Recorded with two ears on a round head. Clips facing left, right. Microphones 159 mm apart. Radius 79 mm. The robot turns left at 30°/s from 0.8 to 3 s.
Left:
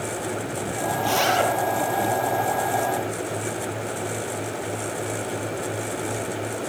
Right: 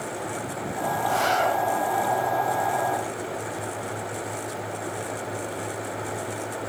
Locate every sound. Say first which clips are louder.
1.0 s a zipper: left 2 dB; 85° left, 5.5 m; by 1.5 s 75° left (ahead or behind), 5.5 m